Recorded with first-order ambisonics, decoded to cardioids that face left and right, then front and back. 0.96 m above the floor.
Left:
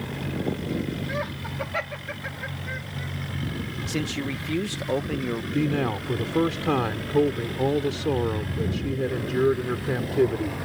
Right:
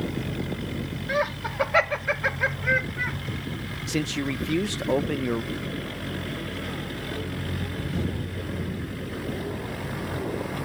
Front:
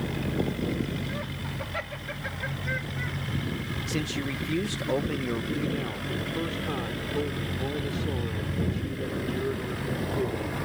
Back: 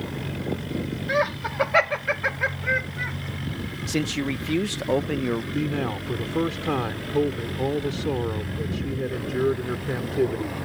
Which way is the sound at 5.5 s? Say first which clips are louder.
Left 7 dB, back 4 dB; 120° left.